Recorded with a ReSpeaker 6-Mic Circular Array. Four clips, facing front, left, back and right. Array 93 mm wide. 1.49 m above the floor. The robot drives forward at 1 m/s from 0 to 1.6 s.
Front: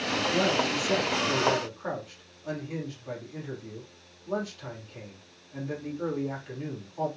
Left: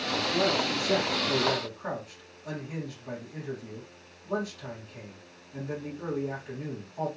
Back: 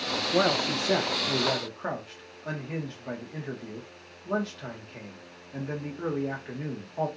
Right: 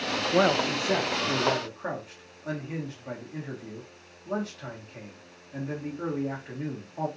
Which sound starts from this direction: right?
A man speaking, at 0.3 s.